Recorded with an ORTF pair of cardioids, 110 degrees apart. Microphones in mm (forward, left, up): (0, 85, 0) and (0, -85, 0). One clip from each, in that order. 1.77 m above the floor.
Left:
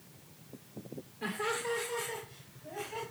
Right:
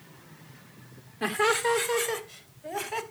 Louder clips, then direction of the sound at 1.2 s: Right 10 dB; 60° right.